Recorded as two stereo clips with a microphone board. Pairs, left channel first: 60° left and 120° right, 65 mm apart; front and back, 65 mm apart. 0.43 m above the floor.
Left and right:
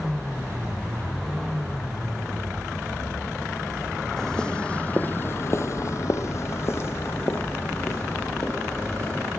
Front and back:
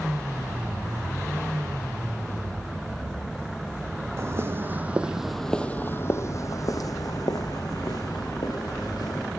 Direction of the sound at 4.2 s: 140° left.